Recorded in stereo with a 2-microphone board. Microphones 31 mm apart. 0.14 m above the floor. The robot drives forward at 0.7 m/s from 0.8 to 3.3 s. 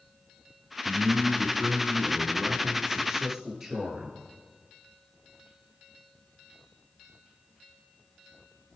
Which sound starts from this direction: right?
A man speaking, at 0.8 s.